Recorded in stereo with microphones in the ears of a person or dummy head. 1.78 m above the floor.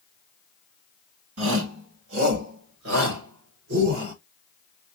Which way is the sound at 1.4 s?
85° right.